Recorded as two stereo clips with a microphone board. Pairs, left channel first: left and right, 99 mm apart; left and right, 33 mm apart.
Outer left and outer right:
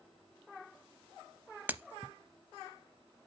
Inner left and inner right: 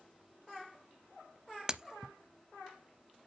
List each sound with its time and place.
1.7 s breaking glass: 15° right (ahead or behind), 0.6 m